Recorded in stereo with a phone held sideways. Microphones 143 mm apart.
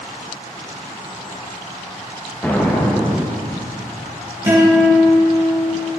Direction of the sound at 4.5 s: 20° right (ahead or behind).